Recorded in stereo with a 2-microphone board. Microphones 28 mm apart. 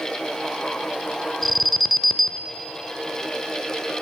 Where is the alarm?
5° left (ahead or behind), 0.7 m.